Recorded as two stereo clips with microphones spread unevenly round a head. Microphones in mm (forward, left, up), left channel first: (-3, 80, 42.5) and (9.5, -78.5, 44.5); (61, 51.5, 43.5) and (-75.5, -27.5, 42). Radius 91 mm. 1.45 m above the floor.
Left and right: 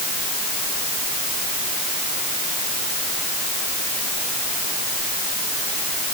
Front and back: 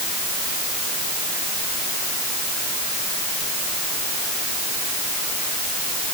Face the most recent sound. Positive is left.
No sound to turn to.